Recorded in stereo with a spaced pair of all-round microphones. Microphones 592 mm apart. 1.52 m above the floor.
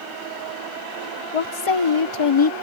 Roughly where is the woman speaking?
Left.